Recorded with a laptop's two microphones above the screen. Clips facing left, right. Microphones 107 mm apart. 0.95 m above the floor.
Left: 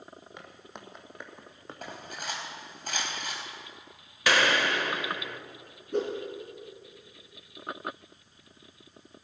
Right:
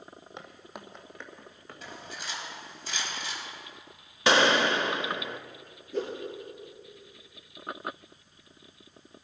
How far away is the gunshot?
About 0.7 m.